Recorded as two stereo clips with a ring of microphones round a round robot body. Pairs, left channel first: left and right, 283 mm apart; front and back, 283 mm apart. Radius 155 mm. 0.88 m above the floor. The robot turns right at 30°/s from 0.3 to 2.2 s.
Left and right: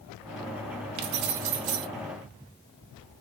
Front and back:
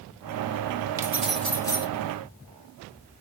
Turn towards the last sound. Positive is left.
turn(degrees=-65)